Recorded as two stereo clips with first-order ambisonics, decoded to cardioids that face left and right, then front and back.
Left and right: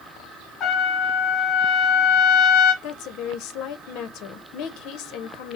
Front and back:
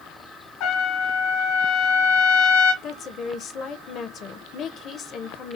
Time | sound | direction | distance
0.6 | a trumpet | 30° left | 1.2 m
2.8 | a woman speaking | 55° left | 0.8 m